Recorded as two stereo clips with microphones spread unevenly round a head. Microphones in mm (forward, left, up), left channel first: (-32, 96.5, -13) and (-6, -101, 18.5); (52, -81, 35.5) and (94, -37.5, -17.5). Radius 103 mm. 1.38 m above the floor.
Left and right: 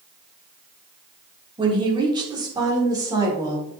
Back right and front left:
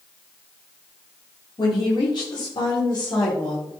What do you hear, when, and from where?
1.6 s a woman speaking: 150° right, 3.5 m; by 3.7 s 155° right, 5 m